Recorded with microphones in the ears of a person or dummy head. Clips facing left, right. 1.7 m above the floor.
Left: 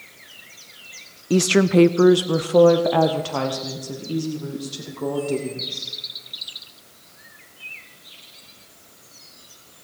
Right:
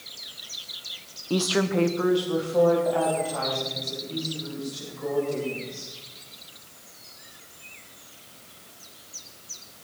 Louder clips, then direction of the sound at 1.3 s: Left 7 dB; 15° left (ahead or behind).